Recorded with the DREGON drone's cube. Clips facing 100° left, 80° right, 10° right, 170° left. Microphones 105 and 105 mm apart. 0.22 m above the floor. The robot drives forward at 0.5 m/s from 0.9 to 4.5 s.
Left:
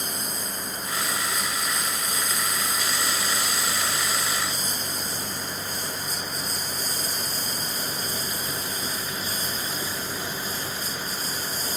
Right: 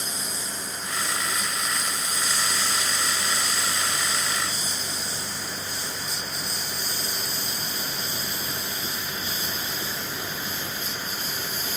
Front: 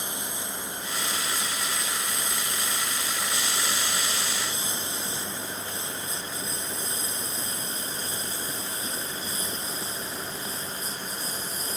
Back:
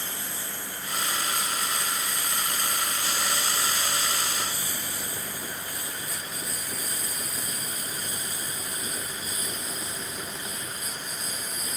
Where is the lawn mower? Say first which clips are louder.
Left 2 dB, front 2 dB; 60° left; by 11.8 s 50° left.